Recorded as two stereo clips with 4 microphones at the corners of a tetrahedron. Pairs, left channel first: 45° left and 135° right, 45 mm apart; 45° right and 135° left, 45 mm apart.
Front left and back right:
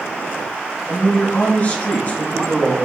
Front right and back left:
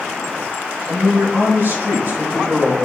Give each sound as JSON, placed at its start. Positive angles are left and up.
{"t": 0.9, "sound": "a man speaking", "azimuth_deg": 110, "distance_m": 4.0}